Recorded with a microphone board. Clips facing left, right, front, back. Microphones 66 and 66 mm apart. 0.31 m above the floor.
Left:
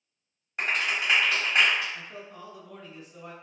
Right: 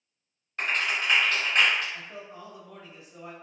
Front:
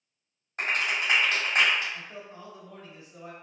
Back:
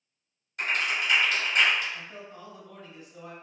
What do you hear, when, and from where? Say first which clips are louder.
0.6 s a clap: even, even; 25° left, 1.5 m
1.9 s a man speaking: even, even; 30° right, 1.1 m